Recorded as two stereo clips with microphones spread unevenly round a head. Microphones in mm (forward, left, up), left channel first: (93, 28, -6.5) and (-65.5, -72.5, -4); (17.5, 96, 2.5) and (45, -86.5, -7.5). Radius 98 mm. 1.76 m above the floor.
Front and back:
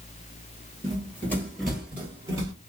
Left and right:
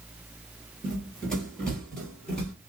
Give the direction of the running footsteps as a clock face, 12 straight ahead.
11 o'clock.